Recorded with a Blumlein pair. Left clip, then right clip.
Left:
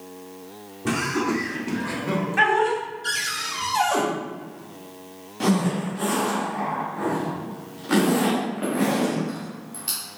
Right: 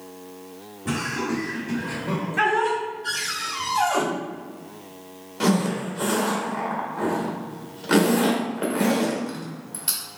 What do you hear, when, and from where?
0.8 s laughter: 50° left, 1.6 m; by 2.8 s 10° right, 0.9 m
3.0 s a cupboard door: 65° left, 1.0 m
5.4 s a zipper: 10° right, 1.2 m